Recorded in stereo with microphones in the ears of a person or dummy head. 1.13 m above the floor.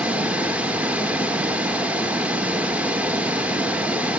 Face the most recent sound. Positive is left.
turn(degrees=-15)  # may be behind; listen again after turning